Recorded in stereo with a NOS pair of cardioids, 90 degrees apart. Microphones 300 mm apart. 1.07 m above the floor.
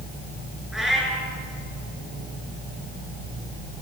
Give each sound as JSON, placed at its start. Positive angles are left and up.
{"t": 0.7, "sound": "a cat meowing", "azimuth_deg": 0, "distance_m": 8.5}